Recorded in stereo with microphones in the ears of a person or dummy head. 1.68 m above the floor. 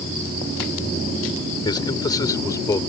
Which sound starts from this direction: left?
A man speaking, at 1.6 s.